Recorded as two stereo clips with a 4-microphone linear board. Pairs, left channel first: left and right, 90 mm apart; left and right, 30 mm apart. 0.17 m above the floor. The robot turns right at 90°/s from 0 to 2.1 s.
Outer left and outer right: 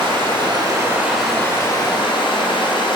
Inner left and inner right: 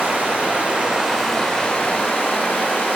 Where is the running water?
115° right, 1.9 m; by 3.0 s 75° left, 1.9 m.